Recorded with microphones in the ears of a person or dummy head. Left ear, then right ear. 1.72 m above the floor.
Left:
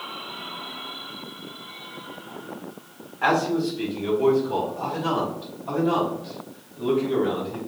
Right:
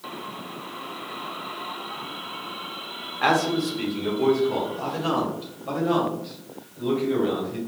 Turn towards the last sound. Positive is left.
turn(degrees=0)  # may be behind; listen again after turning